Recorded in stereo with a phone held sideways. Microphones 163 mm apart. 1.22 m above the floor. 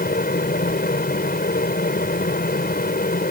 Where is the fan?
65° left (ahead or behind).